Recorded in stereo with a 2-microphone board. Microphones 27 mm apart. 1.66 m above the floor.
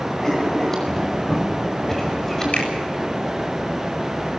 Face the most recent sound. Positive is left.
turn(degrees=55)  # may be behind; listen again after turning